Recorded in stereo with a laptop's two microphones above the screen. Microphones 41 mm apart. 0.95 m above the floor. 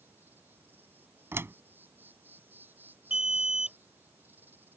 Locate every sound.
0.0 s an insect: 55° right (ahead or behind)
1.3 s a door slam: 80° right
3.1 s an alarm: 20° right (ahead or behind)